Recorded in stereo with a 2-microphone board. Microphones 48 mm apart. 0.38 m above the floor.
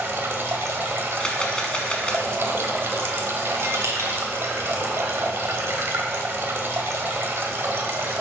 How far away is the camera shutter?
About 1.1 m.